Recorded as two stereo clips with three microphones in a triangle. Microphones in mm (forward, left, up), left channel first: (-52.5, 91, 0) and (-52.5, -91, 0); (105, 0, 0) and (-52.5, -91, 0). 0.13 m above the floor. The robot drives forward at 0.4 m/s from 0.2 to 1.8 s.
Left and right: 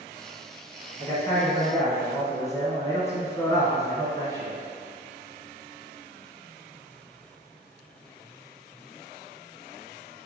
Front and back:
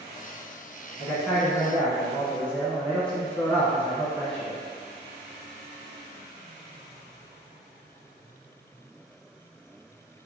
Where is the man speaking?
50° left, 1.2 m; by 4.6 s 95° left, 1.2 m.